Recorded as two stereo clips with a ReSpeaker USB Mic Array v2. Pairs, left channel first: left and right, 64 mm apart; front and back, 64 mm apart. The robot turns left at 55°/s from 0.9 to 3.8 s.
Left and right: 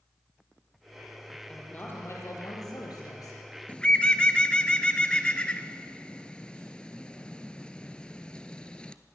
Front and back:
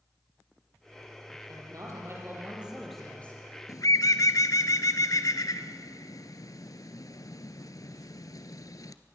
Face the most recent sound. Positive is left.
turn(degrees=15)